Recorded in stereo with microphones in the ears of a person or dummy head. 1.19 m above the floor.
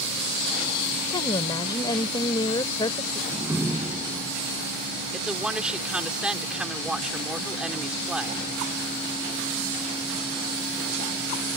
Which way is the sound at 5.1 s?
5° right (ahead or behind).